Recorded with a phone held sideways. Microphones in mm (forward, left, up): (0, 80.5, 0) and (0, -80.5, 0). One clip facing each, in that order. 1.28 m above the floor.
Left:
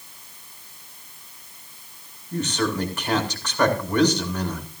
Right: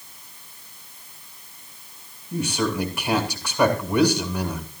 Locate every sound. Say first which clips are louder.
2.3 s a man speaking: even; 10° right (ahead or behind), 2.5 m